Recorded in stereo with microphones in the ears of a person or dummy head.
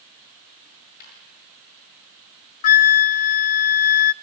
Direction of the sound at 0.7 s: 50° left (ahead or behind).